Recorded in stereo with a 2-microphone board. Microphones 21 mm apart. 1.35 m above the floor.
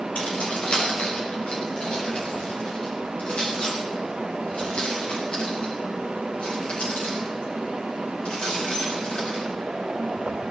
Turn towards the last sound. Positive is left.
turn(degrees=85)